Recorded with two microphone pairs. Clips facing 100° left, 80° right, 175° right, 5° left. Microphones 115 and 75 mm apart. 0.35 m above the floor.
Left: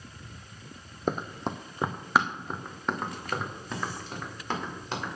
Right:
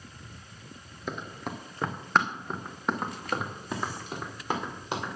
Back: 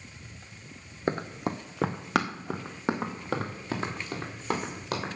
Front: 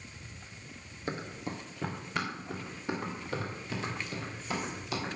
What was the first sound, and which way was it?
Running footsteps, 140° left.